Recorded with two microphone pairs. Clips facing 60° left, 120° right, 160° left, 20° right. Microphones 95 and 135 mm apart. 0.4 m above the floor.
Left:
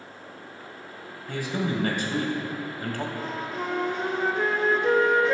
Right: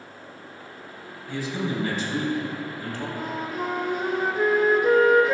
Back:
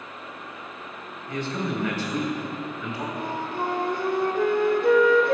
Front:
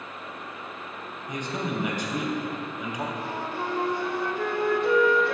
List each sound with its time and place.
1.3 s a man speaking: 55° left, 2.5 m
3.1 s a flute: 160° left, 1.1 m